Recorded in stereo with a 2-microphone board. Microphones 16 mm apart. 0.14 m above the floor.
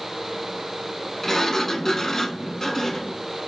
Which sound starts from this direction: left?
A sliding door, at 1.2 s.